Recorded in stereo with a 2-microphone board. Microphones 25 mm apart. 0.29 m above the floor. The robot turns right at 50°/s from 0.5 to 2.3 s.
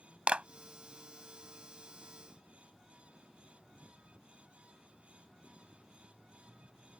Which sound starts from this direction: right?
A clap, at 0.3 s.